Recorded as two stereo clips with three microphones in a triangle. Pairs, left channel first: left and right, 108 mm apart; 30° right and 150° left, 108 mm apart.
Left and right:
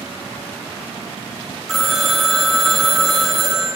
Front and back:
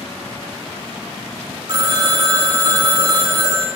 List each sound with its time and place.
1.7 s a phone ringing: straight behind, 1.4 m